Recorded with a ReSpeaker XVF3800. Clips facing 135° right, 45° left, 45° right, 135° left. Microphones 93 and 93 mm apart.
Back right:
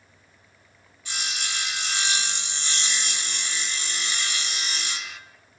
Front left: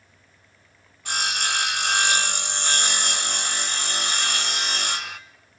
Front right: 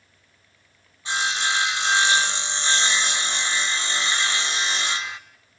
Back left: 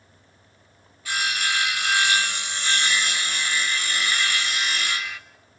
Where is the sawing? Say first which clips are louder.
Front left 7 dB, front right 2 dB; 20° left, 1.1 m.